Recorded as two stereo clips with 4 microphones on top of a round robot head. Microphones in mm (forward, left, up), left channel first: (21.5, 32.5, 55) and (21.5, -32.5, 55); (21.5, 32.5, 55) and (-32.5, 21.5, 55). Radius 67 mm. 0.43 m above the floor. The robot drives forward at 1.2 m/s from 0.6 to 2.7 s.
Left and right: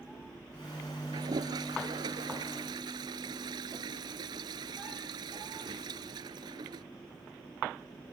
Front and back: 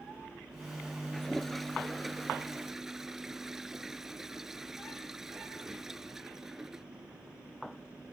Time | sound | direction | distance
1.1 | a toilet flushing | 75° right | ?